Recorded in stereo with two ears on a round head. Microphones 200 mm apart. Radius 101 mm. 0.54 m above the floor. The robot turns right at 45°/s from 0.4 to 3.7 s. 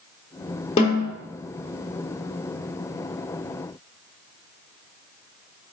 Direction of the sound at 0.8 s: 25° left (ahead or behind).